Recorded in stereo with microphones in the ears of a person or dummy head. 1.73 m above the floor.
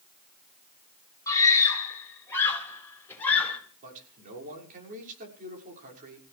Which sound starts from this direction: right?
A man speaking, at 3.8 s.